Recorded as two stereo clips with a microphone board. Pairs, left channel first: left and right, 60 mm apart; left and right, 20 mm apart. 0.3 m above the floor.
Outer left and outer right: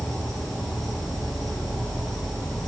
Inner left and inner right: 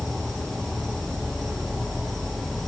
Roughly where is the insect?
Centre.